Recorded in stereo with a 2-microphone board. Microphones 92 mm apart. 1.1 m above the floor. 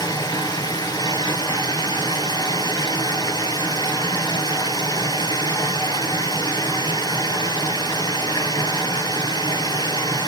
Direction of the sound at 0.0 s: 50° left (ahead or behind).